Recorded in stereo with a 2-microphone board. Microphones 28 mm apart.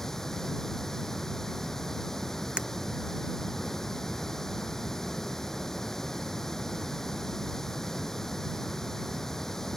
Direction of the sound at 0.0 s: 20° left (ahead or behind).